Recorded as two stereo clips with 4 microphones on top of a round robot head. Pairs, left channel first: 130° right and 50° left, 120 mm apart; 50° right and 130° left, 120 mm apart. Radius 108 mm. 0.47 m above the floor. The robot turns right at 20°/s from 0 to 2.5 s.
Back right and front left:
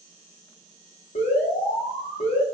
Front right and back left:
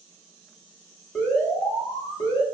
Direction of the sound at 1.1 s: 125° right.